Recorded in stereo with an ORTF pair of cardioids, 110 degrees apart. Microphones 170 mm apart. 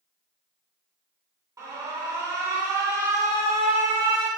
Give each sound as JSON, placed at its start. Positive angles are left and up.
{"t": 1.6, "sound": "an alarm", "azimuth_deg": -20, "distance_m": 2.0}